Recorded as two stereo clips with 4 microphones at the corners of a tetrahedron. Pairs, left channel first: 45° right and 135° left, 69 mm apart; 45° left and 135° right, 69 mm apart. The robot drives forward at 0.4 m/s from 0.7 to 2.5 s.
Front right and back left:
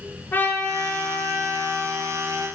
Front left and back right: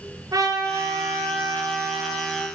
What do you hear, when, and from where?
0.3 s a trumpet: 110° right, 5.5 m; by 2.5 s 115° right, 6 m